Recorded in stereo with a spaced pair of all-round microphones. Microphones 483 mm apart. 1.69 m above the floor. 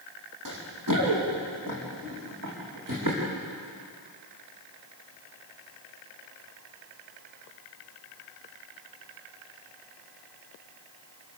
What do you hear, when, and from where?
0.5 s running footsteps: 40° right (ahead or behind), 5 m